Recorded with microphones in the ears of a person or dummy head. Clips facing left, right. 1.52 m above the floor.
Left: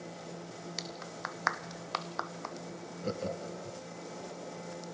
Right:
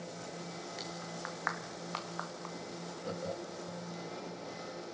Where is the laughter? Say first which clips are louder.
Left 4 dB; 40° left (ahead or behind), 1.2 m.